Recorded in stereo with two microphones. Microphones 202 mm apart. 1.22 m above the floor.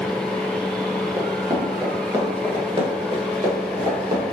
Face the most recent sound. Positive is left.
turn(degrees=-25)  # may be behind; listen again after turning